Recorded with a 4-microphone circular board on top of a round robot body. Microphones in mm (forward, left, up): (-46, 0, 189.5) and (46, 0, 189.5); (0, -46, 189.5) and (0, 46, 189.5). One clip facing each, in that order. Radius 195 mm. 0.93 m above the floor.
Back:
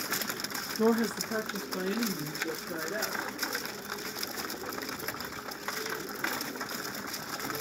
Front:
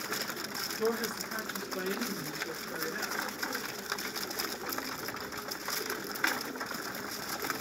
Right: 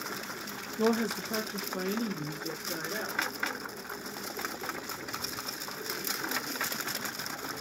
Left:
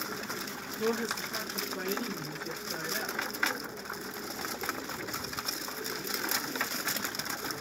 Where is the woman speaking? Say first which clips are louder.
Back 6 dB, right 4 dB; 125° right, 0.5 m; by 3.3 s 130° right, 2 m.